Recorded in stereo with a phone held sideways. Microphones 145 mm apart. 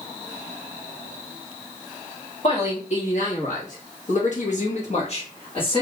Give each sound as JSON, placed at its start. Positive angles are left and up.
{"t": 2.4, "sound": "a man speaking", "side_deg": 50, "distance_m": 1.5}